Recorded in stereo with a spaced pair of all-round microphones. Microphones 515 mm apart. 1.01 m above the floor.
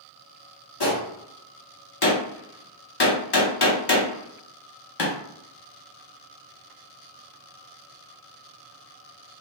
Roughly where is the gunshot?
Left.